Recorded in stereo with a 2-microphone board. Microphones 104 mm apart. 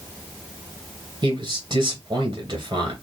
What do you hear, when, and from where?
1.2 s a man speaking: 45° right (ahead or behind), 2.5 m